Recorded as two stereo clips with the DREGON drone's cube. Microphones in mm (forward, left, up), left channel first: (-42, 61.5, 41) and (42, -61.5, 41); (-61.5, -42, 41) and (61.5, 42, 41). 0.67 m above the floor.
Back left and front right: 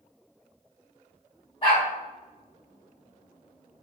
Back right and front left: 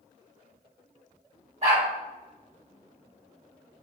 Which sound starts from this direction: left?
A dog barking, at 1.6 s.